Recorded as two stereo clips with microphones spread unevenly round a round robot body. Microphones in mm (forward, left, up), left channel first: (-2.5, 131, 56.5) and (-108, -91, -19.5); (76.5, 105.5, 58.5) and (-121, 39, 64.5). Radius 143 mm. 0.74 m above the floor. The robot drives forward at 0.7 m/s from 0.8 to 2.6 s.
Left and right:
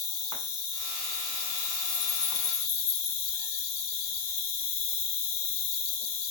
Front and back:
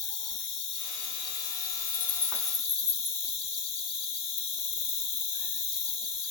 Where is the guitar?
No guitar in this recording.